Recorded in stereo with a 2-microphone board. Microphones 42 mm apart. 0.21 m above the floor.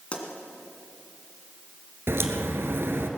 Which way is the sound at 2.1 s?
75° right (ahead or behind).